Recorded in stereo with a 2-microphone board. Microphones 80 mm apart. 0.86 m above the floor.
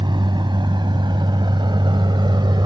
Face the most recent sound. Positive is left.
turn(degrees=-90)